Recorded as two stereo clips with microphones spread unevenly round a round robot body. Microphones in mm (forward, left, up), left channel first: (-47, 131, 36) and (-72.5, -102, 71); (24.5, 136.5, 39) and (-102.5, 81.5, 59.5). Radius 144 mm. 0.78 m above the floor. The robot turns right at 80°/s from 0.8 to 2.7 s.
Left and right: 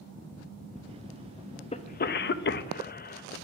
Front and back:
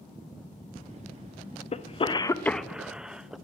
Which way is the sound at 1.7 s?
35° left.